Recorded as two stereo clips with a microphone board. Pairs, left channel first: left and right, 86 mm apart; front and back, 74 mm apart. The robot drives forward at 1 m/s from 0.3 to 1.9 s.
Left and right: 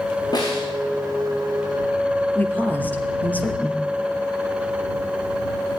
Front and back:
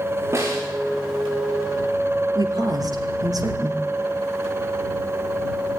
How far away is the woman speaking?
About 3 m.